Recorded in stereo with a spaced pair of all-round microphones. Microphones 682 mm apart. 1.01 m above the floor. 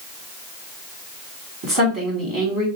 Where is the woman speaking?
30° right (ahead or behind), 2.5 m.